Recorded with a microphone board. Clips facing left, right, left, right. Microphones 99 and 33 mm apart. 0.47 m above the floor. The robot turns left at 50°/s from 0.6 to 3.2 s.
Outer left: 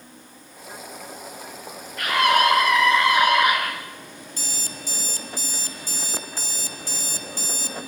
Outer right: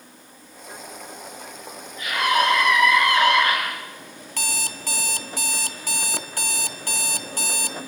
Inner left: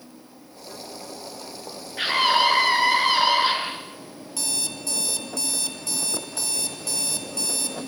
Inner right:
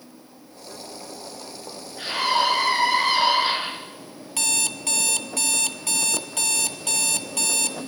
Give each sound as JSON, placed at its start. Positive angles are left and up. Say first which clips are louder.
{"t": 2.0, "sound": "a scream", "louder": "outer left 2 dB, inner left 3 dB", "azimuth_deg": 75, "distance_m": 6.5}
{"t": 4.4, "sound": "an alarm clock", "louder": "outer right 6 dB, inner right 5 dB", "side_deg": -70, "distance_m": 1.5}